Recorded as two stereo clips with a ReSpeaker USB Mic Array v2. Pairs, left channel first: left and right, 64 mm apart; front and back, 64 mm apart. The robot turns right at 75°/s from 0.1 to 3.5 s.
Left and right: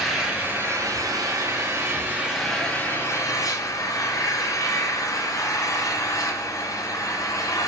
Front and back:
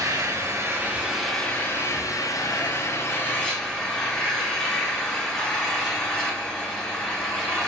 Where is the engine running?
Straight behind, 3 m; by 7.7 s 75° left, 3 m.